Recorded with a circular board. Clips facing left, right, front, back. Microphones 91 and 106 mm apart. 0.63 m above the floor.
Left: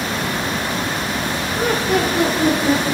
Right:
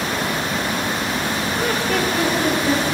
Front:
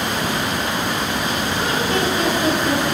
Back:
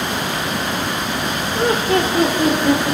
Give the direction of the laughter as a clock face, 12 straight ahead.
7 o'clock.